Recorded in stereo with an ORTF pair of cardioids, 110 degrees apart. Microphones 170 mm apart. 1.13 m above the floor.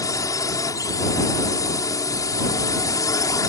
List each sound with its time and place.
0.0 s a drone: 20° left